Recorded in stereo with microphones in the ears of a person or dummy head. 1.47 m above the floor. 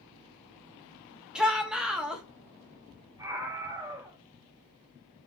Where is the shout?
5° right (ahead or behind), 2.5 m.